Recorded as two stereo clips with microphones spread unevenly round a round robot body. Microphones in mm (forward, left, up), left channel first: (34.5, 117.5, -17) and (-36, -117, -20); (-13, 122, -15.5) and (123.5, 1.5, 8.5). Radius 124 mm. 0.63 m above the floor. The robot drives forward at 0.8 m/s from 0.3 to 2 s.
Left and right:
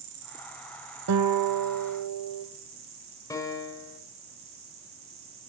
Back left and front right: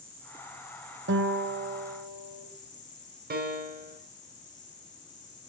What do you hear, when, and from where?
0.0 s an insect: 120° right, 1.9 m; by 5.5 s 145° right, 3 m
1.1 s a guitar: 80° right, 0.8 m; by 2.5 s 125° right, 1.0 m
3.3 s a piano: 5° right, 1.8 m